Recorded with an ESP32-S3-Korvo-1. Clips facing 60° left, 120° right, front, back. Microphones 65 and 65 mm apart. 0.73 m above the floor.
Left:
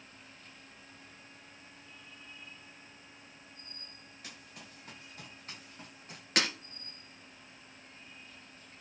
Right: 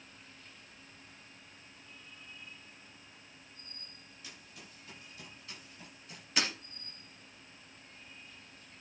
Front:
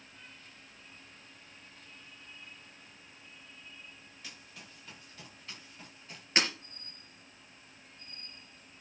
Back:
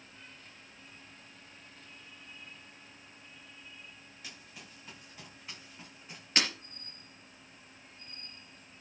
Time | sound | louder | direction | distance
4.2 | running footsteps | left 2 dB, back 1 dB | 95° left | 8.5 m
6.4 | breaking glass | left 3 dB, front 2 dB | 70° left | 4 m